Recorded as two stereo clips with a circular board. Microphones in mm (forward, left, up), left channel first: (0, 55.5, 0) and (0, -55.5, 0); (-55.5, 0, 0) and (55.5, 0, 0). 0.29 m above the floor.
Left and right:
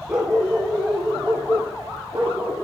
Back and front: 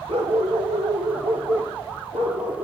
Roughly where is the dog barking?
Ahead.